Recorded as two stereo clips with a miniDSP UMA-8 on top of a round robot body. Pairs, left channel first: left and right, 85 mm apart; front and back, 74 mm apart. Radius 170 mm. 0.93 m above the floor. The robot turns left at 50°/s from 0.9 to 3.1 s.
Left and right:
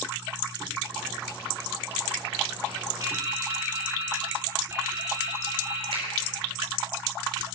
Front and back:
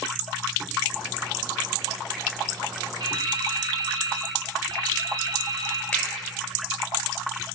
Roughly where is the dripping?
Behind right.